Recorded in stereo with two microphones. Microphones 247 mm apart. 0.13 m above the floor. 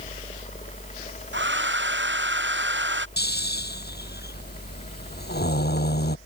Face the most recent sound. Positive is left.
turn(degrees=40)  # may be behind; listen again after turning